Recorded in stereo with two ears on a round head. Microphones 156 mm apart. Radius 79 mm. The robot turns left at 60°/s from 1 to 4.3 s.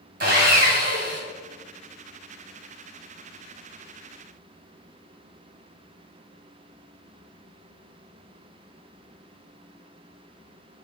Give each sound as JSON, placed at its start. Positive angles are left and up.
{"t": 0.2, "sound": "sawing", "side_deg": -55, "distance_m": 2.5}